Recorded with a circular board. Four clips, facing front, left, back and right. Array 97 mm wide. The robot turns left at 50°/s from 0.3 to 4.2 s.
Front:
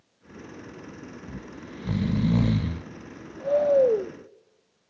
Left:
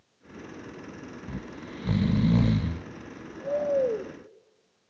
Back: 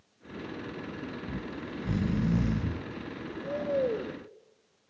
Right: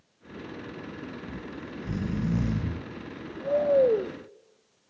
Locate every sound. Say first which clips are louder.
1.3 s snoring: right 1 dB, back 3 dB; 100° left, 0.6 m; by 4.1 s 40° right, 0.6 m